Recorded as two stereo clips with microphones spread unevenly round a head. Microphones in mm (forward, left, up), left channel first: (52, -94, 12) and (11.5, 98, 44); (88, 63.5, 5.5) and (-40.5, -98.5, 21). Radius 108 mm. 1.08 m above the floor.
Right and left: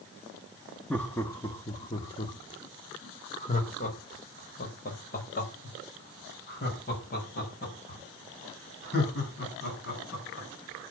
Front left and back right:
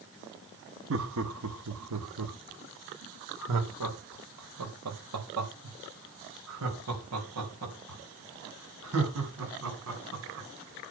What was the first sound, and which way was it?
Laughter, 165° right.